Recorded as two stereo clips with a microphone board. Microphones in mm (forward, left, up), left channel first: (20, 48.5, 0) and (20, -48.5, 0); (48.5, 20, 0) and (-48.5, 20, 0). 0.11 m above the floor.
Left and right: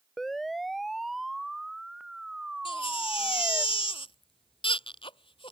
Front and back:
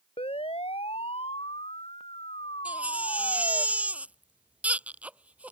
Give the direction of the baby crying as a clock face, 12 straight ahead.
9 o'clock.